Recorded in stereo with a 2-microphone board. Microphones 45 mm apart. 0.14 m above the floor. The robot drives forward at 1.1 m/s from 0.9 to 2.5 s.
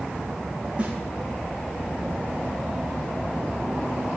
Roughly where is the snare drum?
Right.